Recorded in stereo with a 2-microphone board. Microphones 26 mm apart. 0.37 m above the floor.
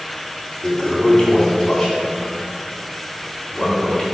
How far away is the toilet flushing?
About 3.5 m.